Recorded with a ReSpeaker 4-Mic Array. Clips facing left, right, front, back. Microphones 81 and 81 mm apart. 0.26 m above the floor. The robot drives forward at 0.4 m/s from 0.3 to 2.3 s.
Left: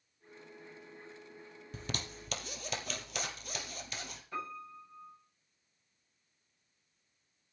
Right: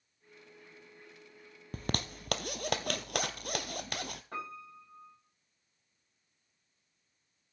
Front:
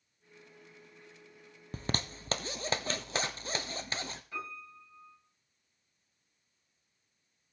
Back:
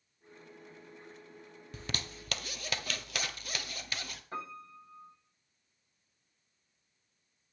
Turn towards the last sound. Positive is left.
turn(degrees=-130)